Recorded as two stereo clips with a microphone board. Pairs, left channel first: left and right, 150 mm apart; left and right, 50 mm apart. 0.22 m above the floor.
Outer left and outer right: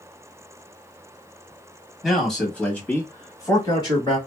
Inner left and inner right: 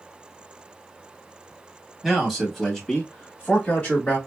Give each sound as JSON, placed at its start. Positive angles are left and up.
{"t": 2.0, "sound": "a man speaking", "side_deg": 0, "distance_m": 1.2}